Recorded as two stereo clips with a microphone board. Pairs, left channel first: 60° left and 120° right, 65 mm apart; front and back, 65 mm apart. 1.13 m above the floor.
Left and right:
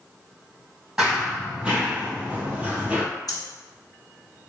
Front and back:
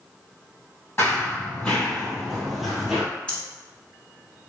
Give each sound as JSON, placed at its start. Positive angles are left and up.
{"t": 1.0, "sound": "running footsteps", "azimuth_deg": -55, "distance_m": 1.5}
{"t": 3.3, "sound": "breathing", "azimuth_deg": 75, "distance_m": 0.9}